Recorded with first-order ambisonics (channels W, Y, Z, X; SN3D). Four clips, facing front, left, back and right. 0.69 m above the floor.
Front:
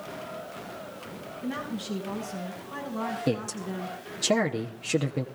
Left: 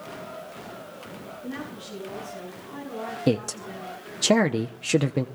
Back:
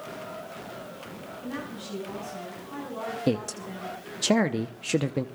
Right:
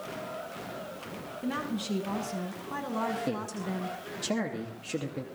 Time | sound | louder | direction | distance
1.4 | a woman speaking | right 5 dB, front 4 dB | 85° right | 6.5 m
3.3 | a man speaking | left 7 dB, back 1 dB | 105° left | 0.7 m